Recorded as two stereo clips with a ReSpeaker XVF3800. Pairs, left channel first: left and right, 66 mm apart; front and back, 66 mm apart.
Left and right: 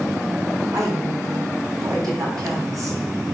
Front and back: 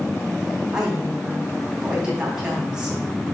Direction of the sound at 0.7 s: 105° right.